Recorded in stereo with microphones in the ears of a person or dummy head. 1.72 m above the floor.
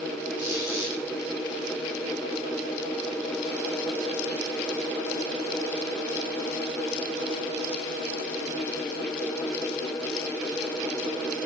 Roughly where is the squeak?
Right.